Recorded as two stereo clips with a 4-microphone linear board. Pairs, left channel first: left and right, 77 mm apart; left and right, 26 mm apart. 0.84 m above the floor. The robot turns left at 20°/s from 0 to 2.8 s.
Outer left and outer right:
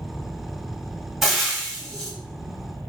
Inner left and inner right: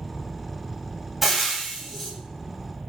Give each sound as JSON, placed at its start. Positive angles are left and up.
{"t": 1.2, "sound": "frying", "side_deg": 0, "distance_m": 1.1}